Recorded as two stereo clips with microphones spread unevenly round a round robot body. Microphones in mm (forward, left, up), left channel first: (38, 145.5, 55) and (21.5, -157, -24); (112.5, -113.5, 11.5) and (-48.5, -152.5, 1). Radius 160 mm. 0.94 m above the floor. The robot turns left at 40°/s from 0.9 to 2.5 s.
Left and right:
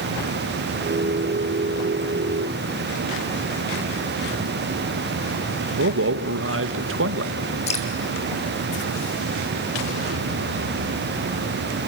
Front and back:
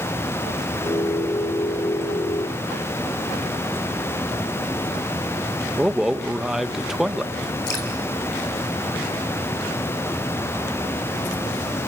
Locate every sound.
5.8 s a man speaking: 80° right, 0.9 m
7.7 s dripping: 20° left, 3 m